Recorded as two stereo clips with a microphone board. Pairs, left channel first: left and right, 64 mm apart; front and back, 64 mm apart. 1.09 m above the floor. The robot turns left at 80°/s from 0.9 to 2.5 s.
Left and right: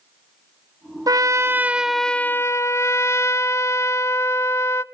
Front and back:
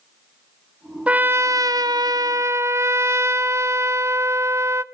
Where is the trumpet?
110° right, 0.7 m; by 4.8 s 135° left, 0.7 m.